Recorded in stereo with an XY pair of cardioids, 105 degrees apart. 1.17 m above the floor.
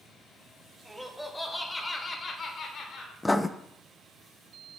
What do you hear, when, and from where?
0.8 s laughter: 5° right, 2.5 m; by 3.1 s 70° left, 1.6 m
3.2 s writing: 15° left, 0.6 m